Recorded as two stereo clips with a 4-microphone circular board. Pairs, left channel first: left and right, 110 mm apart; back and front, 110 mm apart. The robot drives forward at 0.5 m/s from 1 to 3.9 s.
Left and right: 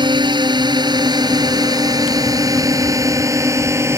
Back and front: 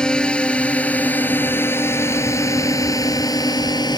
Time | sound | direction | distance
0.0 | a drone | 100° right | ?